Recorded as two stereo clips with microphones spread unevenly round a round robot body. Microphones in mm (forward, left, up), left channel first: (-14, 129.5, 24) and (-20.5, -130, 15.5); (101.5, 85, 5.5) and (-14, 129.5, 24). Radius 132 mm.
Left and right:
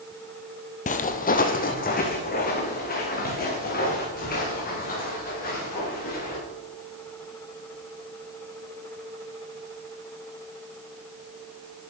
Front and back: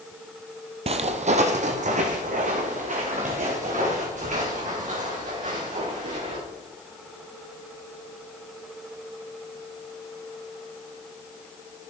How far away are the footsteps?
About 0.9 m.